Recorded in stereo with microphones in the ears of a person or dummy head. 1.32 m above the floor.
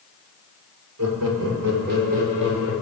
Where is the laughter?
80° right, 1.7 m; by 2.7 s 20° right (ahead or behind), 1.8 m.